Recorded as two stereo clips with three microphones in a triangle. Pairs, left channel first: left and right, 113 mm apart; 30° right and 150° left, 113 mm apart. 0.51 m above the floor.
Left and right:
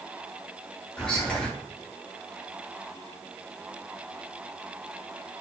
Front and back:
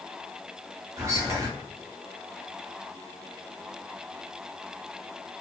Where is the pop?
No pop in this recording.